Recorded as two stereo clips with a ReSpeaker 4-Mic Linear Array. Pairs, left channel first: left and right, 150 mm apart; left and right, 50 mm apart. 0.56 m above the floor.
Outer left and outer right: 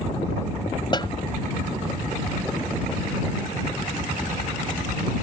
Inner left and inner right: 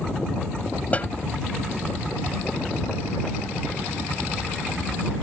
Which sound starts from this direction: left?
A snare drum, at 0.9 s.